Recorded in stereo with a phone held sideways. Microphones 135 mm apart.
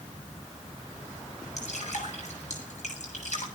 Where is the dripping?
60° left (ahead or behind), 9.5 m.